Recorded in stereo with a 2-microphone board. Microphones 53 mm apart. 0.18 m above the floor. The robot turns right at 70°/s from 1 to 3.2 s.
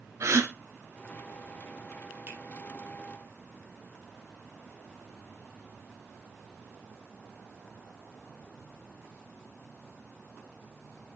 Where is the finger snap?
40° right (ahead or behind), 4 m; by 2.4 s 30° right (ahead or behind), 4 m.